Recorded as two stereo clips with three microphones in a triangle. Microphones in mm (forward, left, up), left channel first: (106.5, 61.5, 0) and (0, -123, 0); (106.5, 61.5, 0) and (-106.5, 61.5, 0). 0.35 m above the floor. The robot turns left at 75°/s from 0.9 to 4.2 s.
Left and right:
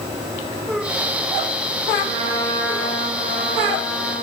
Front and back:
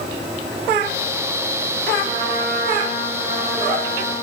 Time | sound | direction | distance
2.0 | a trumpet | 110° left | 3.5 m